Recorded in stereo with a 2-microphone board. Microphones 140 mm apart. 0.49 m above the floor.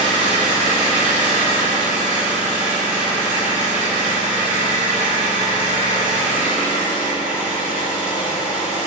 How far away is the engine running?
About 0.7 m.